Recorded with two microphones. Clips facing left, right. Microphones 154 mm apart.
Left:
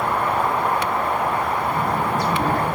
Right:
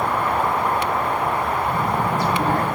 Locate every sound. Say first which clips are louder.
1.7 s a child speaking: even; 15° right (ahead or behind), 5.5 m